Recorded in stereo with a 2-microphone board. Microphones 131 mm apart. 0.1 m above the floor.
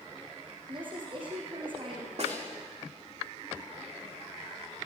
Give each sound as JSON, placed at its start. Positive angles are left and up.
{"t": 0.7, "sound": "a woman speaking", "side_deg": -40, "distance_m": 5.0}
{"t": 2.2, "sound": "a snare drum", "side_deg": -60, "distance_m": 6.0}